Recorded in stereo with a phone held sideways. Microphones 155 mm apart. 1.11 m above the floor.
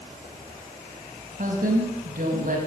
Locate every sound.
1.4 s a woman speaking: 65° right (ahead or behind), 6 m